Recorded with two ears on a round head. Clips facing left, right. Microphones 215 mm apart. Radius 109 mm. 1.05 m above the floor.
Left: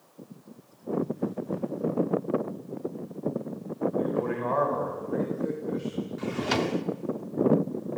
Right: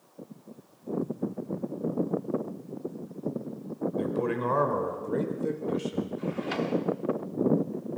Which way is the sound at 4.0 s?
45° right (ahead or behind).